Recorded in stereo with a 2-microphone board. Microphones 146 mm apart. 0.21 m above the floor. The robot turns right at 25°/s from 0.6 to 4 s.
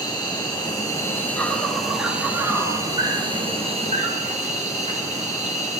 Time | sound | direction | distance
0.0 | an insect | 145° left | 3.5 m